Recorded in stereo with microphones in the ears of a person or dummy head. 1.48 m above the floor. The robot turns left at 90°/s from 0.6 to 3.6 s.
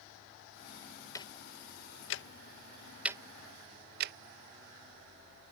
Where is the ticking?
15° left (ahead or behind); by 4.1 s 55° right (ahead or behind).